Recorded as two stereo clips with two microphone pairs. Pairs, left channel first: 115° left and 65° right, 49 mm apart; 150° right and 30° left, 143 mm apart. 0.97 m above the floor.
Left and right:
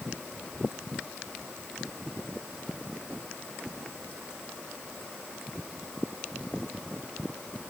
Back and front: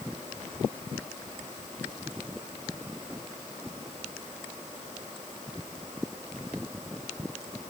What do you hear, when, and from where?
Only background noise.